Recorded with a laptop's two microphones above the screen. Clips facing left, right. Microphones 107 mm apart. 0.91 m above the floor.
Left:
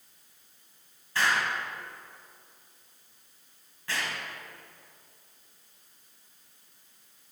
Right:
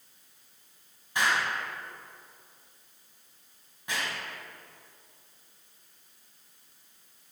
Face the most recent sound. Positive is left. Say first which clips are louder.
# even
turn(degrees=-15)  # may be behind; listen again after turning